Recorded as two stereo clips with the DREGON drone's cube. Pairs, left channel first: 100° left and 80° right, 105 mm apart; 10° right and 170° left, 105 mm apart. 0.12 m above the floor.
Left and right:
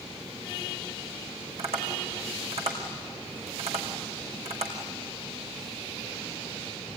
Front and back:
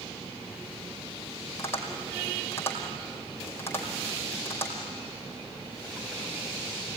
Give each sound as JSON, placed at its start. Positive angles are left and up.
{"t": 1.6, "sound": "tapping", "azimuth_deg": -80, "distance_m": 4.5}